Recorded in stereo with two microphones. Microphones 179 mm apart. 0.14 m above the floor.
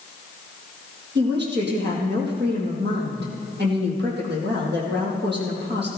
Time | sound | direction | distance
1.1 | a woman speaking | 65° right (ahead or behind) | 4 m